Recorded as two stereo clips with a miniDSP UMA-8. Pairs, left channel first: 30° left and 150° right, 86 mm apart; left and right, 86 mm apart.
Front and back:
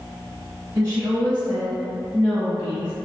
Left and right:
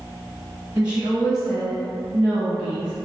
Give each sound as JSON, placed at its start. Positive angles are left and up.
{"t": 0.8, "sound": "a woman speaking", "azimuth_deg": -150, "distance_m": 1.4}